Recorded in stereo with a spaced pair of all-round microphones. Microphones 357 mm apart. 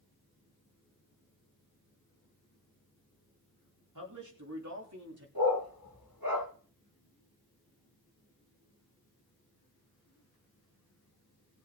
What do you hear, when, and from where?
4.0 s a man speaking: 60° right (ahead or behind), 3 m; by 5.2 s 40° right (ahead or behind), 3.5 m
5.3 s a dog barking: 85° right, 8.5 m